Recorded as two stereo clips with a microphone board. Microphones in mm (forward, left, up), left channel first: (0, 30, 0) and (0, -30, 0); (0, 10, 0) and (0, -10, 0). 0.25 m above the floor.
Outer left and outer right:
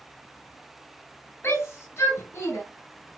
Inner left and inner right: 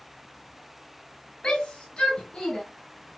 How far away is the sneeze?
No sneeze in this recording.